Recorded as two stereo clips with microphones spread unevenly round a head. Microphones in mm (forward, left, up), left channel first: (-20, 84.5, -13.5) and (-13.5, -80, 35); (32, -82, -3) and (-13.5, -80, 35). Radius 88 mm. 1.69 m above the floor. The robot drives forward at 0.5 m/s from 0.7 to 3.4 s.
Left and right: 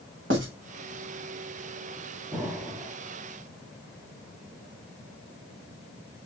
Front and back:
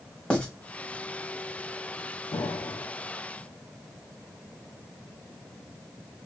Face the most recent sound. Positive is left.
turn(degrees=-105)